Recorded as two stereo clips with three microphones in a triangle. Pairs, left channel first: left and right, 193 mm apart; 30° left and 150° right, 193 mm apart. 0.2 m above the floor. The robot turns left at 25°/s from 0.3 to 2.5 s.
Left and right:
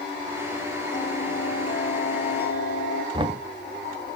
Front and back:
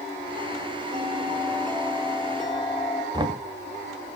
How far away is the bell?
About 3.5 m.